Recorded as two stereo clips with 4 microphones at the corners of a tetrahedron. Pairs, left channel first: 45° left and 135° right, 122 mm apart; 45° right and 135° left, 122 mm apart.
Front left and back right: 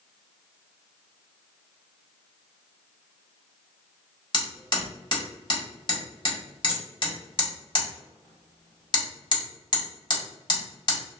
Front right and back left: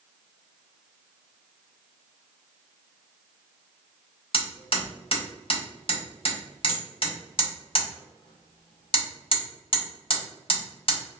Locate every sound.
4.3 s hammering: straight ahead, 1.7 m